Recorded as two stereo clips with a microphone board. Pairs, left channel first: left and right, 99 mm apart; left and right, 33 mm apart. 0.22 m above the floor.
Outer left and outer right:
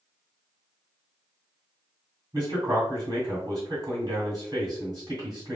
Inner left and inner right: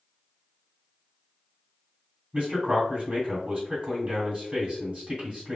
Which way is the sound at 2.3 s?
40° right (ahead or behind).